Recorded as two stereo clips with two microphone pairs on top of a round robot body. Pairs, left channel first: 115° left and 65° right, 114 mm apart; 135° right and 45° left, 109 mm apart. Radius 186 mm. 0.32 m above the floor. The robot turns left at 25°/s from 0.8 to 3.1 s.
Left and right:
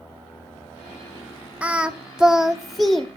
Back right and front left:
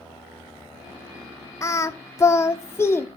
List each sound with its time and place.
1.6 s singing: 140° right, 1.1 m; by 3.1 s 175° right, 1.1 m